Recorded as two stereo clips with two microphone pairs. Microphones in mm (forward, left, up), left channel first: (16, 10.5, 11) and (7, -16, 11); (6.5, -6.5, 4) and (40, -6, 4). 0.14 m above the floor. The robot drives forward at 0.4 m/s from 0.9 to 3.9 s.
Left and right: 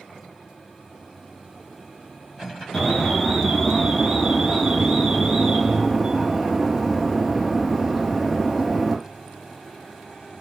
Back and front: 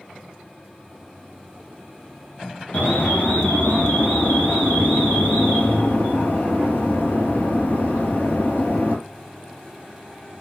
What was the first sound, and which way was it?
An alarm, 160° left.